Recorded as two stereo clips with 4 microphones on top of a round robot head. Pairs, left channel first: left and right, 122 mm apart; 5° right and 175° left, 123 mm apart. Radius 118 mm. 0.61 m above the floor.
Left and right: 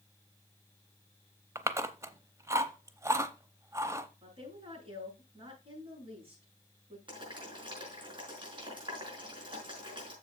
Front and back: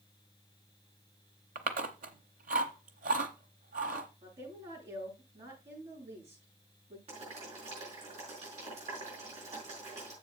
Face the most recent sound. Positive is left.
turn(degrees=-140)